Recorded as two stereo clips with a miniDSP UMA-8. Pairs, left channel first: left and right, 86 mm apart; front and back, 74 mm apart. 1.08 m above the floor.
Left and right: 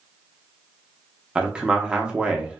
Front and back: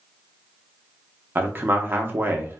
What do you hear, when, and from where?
1.4 s a man speaking: 155° right, 0.6 m